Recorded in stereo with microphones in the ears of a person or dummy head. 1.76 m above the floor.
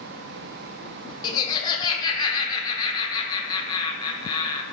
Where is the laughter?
15° left (ahead or behind), 0.8 m.